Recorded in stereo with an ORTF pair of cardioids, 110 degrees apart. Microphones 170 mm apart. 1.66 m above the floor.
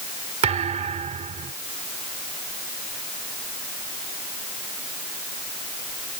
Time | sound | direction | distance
0.4 | a thud | 40° right | ?